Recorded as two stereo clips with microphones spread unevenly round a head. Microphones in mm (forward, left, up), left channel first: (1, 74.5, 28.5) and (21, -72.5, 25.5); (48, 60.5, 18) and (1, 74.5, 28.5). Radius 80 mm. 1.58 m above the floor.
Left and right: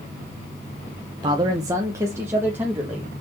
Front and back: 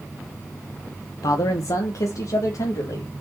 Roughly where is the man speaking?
Ahead.